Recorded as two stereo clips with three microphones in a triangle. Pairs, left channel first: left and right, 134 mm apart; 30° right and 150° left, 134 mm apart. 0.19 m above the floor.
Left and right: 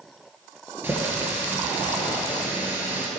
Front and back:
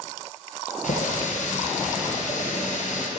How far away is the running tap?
About 2.5 m.